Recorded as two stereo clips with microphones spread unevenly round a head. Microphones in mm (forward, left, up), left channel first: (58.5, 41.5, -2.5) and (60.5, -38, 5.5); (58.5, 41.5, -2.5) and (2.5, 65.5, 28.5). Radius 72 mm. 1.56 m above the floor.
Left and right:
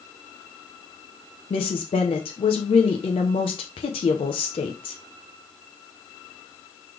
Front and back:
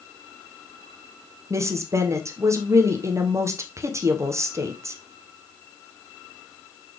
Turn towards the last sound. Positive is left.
turn(degrees=130)